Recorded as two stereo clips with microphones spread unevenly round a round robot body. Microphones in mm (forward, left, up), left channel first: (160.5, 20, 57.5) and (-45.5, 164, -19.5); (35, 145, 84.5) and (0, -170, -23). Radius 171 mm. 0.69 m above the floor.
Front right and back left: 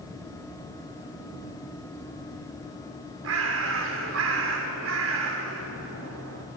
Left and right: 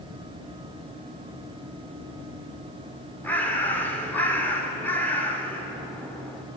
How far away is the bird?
About 1.7 m.